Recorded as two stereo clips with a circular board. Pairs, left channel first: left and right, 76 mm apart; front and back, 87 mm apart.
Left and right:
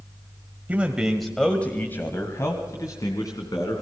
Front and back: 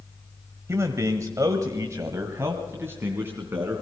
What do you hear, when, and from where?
0.7 s a man speaking: 145° right, 1.6 m; by 3.8 s 115° left, 3.5 m